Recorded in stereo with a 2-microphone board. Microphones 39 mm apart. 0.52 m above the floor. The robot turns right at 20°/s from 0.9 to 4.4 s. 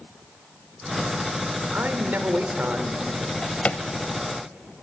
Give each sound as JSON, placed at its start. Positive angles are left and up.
{"t": 1.7, "sound": "a man speaking", "side_deg": -55, "distance_m": 1.6}
{"t": 3.2, "sound": "a drawer", "side_deg": 30, "distance_m": 0.6}